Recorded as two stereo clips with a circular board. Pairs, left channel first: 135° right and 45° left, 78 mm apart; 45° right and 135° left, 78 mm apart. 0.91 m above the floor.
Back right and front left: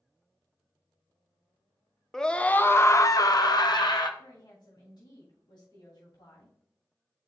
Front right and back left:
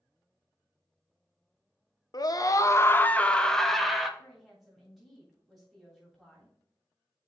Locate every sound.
2.1 s a scream: 55° right, 0.7 m; by 4.1 s 140° right, 1.0 m
4.2 s a woman speaking: 135° right, 3 m